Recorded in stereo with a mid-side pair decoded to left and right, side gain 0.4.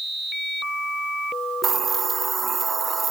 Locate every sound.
1.6 s a hiss: 40° right, 0.7 m